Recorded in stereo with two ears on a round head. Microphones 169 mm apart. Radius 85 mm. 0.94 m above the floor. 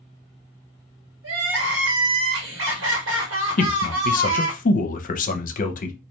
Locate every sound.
1.2 s crying: 70° right (ahead or behind), 1.4 m
3.6 s a man speaking: 45° left (ahead or behind), 0.7 m